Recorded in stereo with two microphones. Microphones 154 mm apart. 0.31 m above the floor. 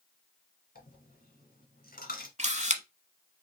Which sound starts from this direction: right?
A camera shutter, at 2.4 s.